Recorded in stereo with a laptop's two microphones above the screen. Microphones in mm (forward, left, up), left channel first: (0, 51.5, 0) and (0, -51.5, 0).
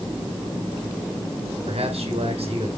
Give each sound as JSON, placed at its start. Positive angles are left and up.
{"t": 1.7, "sound": "a man speaking", "side_deg": -80, "distance_m": 4.0}